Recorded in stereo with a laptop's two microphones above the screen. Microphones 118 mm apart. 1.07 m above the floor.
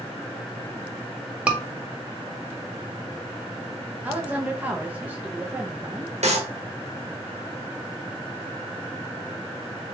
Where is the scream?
10° right (ahead or behind), 1.4 m.